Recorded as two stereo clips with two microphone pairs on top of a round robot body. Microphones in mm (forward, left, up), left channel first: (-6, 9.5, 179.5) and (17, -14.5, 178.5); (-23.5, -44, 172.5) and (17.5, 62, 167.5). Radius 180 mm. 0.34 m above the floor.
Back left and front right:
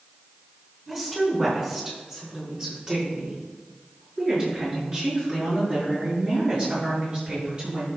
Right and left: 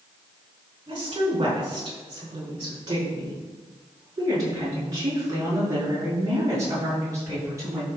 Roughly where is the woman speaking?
Ahead left.